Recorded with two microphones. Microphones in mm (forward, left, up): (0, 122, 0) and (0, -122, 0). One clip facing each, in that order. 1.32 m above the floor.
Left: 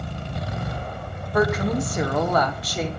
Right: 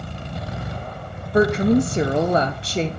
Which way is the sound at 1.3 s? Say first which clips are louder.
Right 6 dB; 25° right (ahead or behind).